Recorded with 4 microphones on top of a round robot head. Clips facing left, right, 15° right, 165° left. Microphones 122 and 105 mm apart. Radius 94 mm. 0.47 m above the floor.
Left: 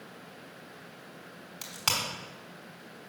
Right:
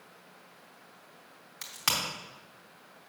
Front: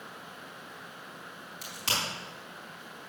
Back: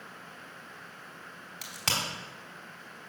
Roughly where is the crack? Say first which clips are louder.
Even, even; behind.